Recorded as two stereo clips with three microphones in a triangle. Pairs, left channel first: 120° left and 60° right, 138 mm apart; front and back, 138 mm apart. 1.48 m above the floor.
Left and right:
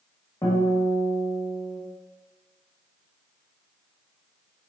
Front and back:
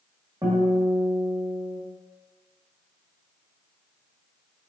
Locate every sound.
0.4 s a guitar: 155° left, 1.4 m